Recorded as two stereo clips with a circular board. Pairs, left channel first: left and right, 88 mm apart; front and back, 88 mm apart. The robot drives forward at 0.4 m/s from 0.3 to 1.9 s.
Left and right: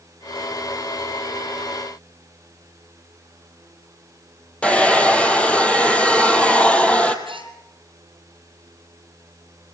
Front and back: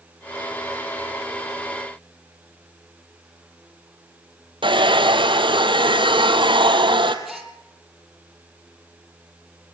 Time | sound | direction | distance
4.6 | a hair dryer | 165° left | 2 m
7.2 | a gasp | 90° right | 3 m